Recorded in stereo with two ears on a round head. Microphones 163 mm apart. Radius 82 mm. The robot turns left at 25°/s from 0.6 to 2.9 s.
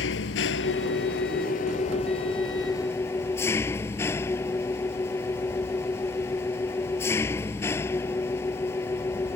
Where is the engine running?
70° left; by 9.4 s 15° left.